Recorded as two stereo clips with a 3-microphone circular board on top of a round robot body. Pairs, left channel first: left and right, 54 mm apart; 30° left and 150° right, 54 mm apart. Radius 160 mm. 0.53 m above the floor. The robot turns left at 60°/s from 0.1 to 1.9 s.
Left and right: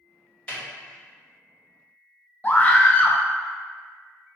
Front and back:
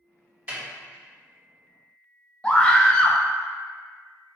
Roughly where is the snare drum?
Behind left.